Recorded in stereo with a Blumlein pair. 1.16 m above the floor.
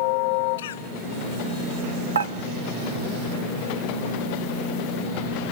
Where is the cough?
60° left, 1.2 m.